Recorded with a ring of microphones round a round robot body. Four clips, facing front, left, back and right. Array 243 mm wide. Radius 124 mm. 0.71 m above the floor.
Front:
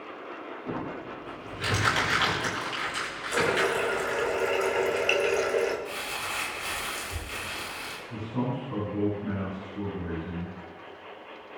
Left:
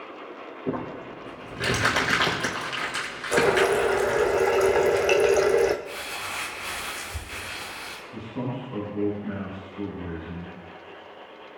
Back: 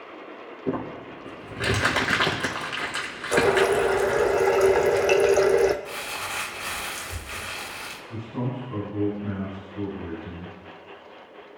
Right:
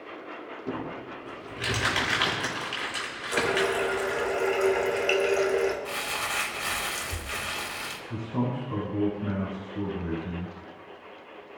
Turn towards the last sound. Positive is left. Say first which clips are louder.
# right 2 dB, even
turn(degrees=-90)